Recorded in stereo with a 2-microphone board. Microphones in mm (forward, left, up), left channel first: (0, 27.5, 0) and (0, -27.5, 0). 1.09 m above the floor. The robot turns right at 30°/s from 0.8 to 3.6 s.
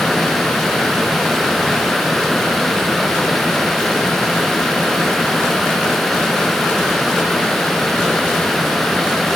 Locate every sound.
Only background noise.